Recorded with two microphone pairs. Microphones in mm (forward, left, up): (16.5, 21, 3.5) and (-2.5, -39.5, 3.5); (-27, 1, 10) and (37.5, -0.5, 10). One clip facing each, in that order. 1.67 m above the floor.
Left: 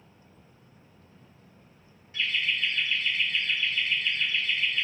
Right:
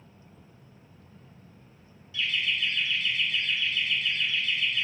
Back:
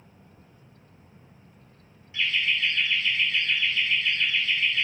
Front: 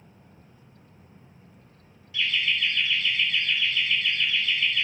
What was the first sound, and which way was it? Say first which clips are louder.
Laughter: even, even; 120° left.